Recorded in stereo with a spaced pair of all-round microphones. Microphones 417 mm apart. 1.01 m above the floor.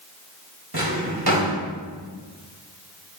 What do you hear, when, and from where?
0.7 s a drawer: 60° right (ahead or behind), 1.5 m